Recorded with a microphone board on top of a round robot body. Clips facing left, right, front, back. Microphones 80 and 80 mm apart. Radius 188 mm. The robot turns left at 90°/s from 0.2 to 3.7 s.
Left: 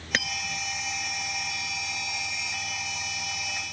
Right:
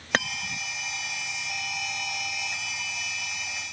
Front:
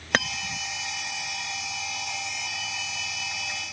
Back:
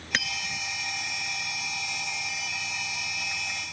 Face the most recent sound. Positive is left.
turn(degrees=0)